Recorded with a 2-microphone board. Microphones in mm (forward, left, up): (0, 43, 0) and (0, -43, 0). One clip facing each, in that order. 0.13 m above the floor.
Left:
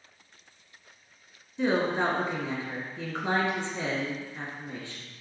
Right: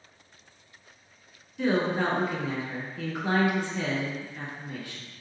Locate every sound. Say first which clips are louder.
1.6 s a woman speaking: even; 25° left (ahead or behind), 1.2 m